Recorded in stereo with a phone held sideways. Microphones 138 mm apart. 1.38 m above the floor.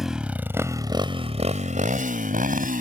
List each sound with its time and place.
0.0 s a motorcycle: centre (ahead or behind); by 2.8 s 80° right